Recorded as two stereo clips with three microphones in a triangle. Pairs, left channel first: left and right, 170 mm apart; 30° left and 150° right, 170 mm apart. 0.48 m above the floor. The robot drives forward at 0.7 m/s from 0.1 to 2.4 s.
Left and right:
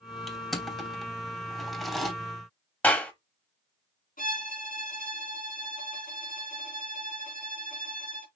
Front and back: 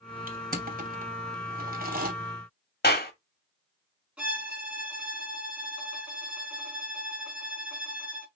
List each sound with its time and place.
0.3 s crushing: straight behind, 2 m
2.8 s a clap: 10° left, 1.9 m
4.2 s a violin: 125° left, 3.5 m